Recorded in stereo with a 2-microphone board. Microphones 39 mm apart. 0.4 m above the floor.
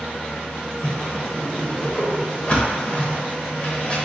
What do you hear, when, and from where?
0.8 s a whoosh: 30° left (ahead or behind), 0.7 m